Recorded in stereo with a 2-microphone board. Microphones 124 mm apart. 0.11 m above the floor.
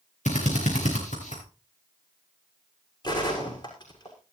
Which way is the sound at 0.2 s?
75° left (ahead or behind).